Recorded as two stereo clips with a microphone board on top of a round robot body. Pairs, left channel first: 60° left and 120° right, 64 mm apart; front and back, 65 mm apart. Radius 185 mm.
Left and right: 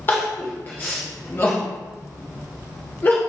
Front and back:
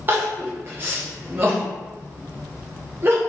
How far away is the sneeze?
I don't hear a sneeze.